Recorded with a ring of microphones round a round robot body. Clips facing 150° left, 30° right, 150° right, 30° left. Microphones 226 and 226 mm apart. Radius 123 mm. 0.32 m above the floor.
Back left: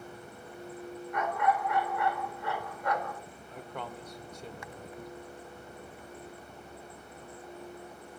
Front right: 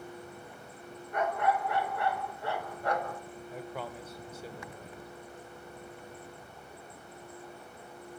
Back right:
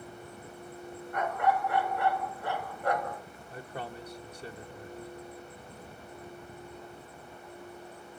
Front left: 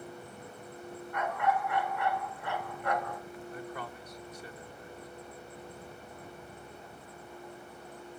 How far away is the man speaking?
About 1.3 m.